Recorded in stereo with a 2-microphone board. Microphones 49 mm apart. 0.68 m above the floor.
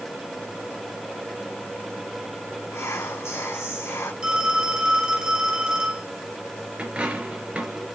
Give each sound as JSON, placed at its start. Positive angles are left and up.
{"t": 2.7, "sound": "whispering", "side_deg": 70, "distance_m": 1.5}
{"t": 4.2, "sound": "a phone ringing", "side_deg": -20, "distance_m": 4.0}
{"t": 6.8, "sound": "a dropped coin", "side_deg": -25, "distance_m": 4.0}